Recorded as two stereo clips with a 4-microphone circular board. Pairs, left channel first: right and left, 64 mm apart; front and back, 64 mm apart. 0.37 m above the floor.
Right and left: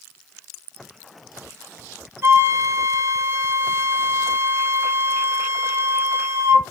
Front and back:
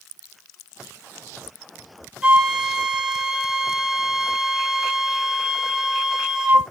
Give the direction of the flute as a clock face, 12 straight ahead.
9 o'clock.